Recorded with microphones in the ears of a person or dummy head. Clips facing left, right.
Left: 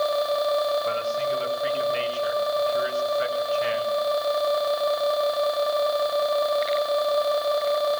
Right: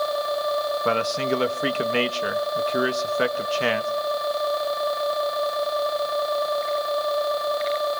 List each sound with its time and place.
0.8 s a man speaking: 75° right (ahead or behind), 1.6 m